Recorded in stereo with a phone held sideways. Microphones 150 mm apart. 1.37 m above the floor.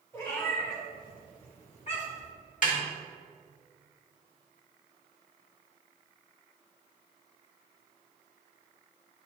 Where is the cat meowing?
20° left (ahead or behind), 2.5 m; by 2.3 s 50° left (ahead or behind), 1.5 m.